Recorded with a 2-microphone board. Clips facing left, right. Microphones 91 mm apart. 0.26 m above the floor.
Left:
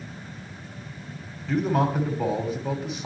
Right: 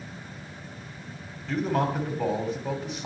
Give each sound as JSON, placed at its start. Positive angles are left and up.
{"t": 1.5, "sound": "a man speaking", "side_deg": 5, "distance_m": 1.5}